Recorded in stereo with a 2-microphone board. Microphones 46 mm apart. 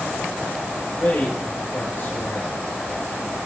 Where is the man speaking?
50° left (ahead or behind), 3.5 m.